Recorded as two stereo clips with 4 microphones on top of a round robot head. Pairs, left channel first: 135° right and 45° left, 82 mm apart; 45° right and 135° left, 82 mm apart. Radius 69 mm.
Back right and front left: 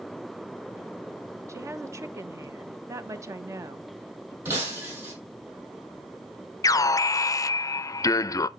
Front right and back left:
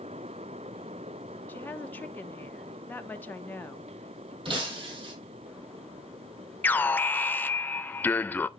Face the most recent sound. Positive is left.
turn(degrees=-105)